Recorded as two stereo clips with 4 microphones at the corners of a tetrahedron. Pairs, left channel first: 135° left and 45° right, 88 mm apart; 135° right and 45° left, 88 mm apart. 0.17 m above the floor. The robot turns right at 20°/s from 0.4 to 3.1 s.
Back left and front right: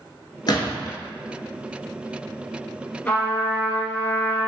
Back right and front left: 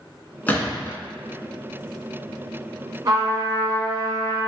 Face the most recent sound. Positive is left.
turn(degrees=75)